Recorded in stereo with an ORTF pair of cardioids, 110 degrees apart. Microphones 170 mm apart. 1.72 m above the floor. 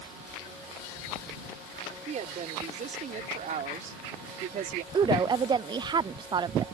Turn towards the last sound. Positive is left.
turn(degrees=-25)